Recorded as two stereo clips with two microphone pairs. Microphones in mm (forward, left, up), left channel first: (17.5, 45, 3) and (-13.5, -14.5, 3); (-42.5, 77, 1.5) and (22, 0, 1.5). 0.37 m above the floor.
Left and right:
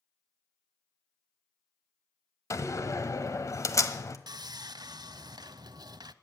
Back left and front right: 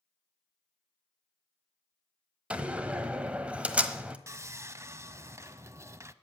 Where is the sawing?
115° right, 0.5 m.